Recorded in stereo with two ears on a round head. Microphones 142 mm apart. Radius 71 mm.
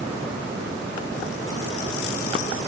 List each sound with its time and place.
Only background noise.